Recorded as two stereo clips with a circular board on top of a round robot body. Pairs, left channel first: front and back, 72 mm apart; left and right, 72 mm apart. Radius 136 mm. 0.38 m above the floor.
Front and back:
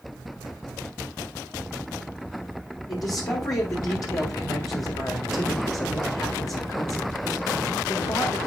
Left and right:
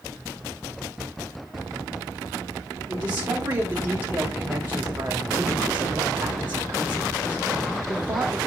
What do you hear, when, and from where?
2.9 s a man speaking: 30° right, 2.0 m